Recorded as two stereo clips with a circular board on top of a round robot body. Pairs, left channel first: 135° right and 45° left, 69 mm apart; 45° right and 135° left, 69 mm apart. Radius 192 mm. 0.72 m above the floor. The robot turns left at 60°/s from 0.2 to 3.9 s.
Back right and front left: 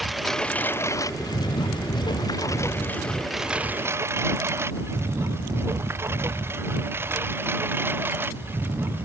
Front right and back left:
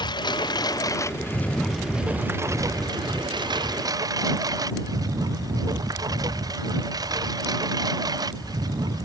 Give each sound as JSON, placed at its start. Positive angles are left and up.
{"t": 0.0, "sound": "a lawn mower", "azimuth_deg": -45}